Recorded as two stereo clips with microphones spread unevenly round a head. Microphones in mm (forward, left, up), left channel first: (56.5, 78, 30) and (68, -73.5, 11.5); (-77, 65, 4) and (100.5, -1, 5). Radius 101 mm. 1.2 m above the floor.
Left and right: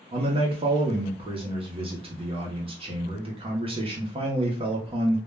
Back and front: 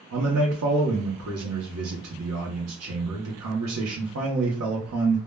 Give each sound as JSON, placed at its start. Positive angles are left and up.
{"t": 0.1, "sound": "a man speaking", "azimuth_deg": -30, "distance_m": 0.7}